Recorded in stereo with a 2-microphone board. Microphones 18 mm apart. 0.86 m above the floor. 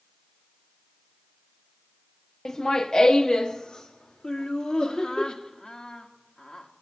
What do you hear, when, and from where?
2.5 s laughter: 35° left (ahead or behind), 0.8 m; by 5.2 s 65° left (ahead or behind), 2.5 m
4.2 s laughter: 60° left (ahead or behind), 1.4 m